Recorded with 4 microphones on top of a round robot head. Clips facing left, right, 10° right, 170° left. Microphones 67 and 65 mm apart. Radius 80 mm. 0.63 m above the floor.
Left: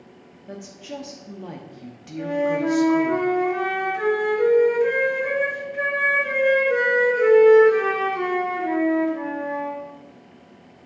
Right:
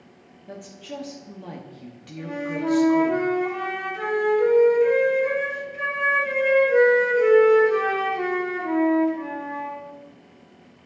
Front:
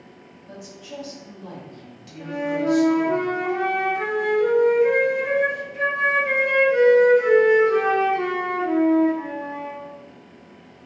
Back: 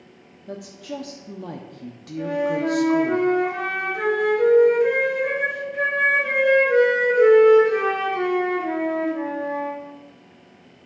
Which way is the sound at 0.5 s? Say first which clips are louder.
Left 1 dB, back 5 dB; 170° left.